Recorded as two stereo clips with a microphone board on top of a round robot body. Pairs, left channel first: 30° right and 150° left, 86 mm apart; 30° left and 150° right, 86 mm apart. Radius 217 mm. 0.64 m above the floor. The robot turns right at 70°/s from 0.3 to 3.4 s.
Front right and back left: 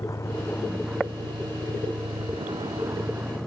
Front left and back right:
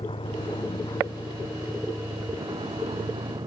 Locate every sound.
0.0 s a vehicle: 25° left; by 3.5 s 120° right